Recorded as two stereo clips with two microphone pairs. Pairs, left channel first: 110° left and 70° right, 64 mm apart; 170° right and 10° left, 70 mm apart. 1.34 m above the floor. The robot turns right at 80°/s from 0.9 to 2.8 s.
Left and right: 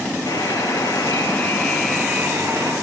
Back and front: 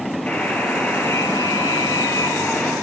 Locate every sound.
0.3 s a buzzer: 125° left, 7.5 m; by 2.7 s 90° right, 7.5 m